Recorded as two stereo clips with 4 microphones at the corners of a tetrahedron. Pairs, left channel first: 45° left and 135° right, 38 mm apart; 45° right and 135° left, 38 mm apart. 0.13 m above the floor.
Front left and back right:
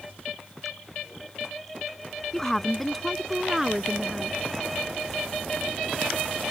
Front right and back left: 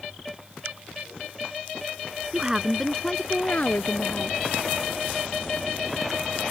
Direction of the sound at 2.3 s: 100° left.